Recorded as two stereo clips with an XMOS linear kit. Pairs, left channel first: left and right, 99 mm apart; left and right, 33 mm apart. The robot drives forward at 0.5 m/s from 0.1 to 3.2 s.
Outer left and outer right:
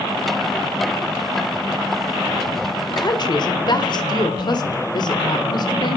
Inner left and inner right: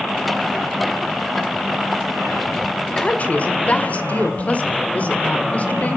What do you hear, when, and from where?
2.9 s a woman speaking: 45° left (ahead or behind), 1.9 m